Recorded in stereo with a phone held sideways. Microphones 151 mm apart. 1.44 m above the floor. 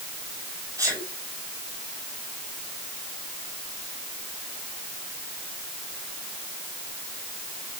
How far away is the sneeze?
About 5.5 m.